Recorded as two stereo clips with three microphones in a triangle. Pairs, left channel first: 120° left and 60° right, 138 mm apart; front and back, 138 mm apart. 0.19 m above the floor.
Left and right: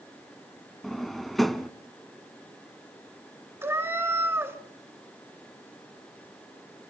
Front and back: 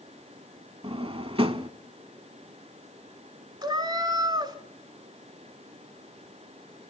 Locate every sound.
0.8 s a drawer: 150° right, 0.7 m
3.6 s a cat meowing: 130° right, 0.8 m